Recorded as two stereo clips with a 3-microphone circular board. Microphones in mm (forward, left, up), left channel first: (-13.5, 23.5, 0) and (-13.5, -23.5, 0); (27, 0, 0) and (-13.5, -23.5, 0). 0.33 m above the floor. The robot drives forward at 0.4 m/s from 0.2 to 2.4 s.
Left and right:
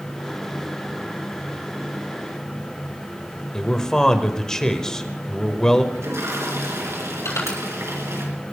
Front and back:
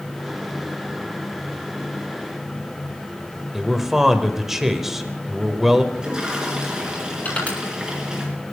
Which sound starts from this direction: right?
A toilet flushing, at 5.9 s.